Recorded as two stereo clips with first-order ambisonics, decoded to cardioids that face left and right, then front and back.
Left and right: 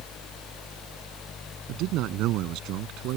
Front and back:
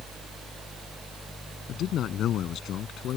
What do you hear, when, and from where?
1.7 s a man speaking: 50° right